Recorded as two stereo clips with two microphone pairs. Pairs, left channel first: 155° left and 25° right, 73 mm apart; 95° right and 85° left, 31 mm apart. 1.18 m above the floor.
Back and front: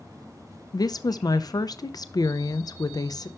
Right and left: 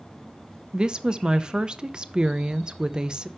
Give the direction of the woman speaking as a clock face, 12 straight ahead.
7 o'clock.